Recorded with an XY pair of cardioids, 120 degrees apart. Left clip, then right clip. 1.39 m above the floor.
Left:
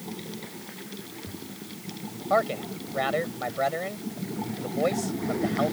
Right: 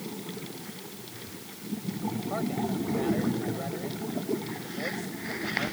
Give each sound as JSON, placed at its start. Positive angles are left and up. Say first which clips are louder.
{"t": 2.3, "sound": "a man speaking", "louder": "left 9 dB", "azimuth_deg": 65}